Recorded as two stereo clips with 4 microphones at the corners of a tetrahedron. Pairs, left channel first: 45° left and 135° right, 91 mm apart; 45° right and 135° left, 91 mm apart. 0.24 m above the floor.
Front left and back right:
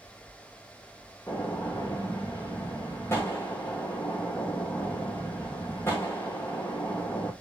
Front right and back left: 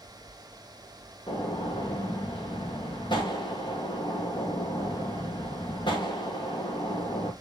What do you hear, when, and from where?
1.3 s a gunshot: 15° right, 5 m